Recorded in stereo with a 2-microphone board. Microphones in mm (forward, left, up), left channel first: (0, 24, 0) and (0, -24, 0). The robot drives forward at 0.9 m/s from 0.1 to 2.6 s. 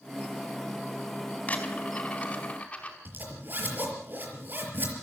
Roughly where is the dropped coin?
Left.